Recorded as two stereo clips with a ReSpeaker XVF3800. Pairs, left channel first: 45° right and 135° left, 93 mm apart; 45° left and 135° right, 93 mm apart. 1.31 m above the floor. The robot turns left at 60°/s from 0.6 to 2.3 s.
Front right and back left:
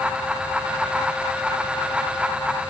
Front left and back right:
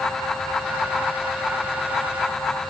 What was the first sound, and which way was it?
Only background noise.